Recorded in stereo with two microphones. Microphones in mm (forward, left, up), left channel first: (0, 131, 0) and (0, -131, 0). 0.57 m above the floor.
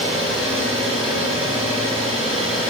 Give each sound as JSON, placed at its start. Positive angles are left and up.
{"t": 0.0, "sound": "an engine running", "side_deg": -50, "distance_m": 9.0}